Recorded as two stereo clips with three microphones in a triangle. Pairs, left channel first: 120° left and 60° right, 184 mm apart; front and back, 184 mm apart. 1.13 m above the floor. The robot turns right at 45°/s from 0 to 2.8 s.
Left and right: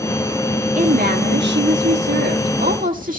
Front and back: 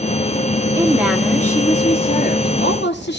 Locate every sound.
0.8 s a woman speaking: 110° right, 2 m; by 3.2 s 20° right, 2 m